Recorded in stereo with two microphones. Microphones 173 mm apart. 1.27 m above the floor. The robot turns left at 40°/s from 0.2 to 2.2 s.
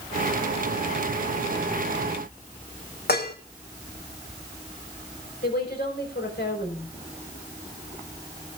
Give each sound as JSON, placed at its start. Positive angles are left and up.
{"t": 3.1, "sound": "dishes clattering", "side_deg": 65, "distance_m": 1.5}
{"t": 5.4, "sound": "a woman speaking", "side_deg": 70, "distance_m": 5.0}